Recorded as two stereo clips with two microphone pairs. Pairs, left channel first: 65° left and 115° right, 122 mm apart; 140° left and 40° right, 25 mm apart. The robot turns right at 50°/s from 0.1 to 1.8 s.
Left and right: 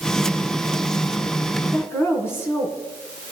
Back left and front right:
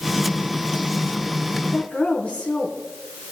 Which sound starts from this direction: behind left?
A woman speaking, at 1.6 s.